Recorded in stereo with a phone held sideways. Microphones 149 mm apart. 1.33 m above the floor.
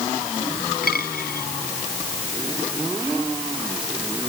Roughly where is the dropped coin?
Left.